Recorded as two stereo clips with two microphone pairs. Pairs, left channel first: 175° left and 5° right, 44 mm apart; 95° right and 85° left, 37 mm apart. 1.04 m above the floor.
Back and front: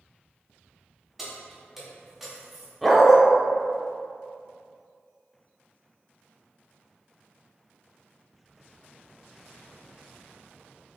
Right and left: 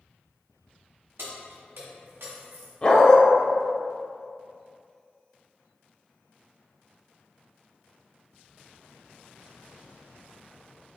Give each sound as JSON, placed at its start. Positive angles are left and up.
{"t": 1.2, "sound": "keys jangling", "azimuth_deg": 80, "distance_m": 1.2}
{"t": 2.8, "sound": "a dog barking", "azimuth_deg": -110, "distance_m": 0.6}